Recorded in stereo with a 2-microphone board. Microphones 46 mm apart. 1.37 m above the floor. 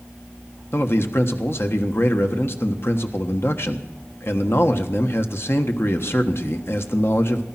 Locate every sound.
0.7 s a man speaking: 60° left (ahead or behind), 1.3 m